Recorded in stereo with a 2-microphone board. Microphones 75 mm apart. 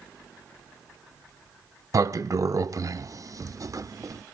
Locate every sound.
1.9 s a sliding door: 50° right (ahead or behind), 0.5 m